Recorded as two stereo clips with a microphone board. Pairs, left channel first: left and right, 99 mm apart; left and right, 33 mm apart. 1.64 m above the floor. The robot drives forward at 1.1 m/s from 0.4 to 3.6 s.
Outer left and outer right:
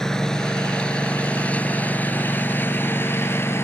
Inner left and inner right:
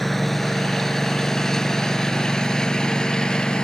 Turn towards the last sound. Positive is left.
turn(degrees=25)  # may be behind; listen again after turning